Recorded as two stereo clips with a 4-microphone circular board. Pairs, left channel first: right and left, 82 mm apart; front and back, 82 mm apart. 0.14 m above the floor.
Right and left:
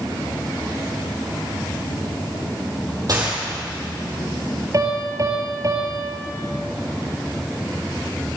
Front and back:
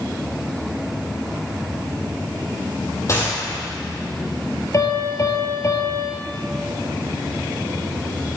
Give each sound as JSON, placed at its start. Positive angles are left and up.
{"t": 3.1, "sound": "a gunshot", "azimuth_deg": 50, "distance_m": 5.0}
{"t": 4.7, "sound": "a piano", "azimuth_deg": 45, "distance_m": 2.5}